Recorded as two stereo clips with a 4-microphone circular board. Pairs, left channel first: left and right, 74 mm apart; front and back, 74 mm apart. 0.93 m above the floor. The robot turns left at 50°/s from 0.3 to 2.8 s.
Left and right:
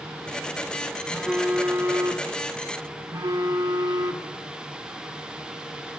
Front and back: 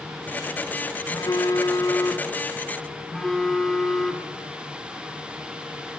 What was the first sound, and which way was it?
A phone buzzing, 5° left.